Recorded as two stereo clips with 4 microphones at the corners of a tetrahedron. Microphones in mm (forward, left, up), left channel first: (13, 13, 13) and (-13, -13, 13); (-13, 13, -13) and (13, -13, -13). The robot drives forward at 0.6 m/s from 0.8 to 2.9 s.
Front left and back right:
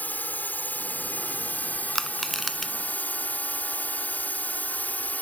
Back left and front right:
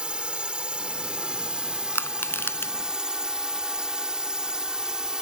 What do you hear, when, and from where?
0.0 s a drone: 15° left; by 5.2 s 20° left
1.9 s crushing: 130° left; by 2.7 s 140° left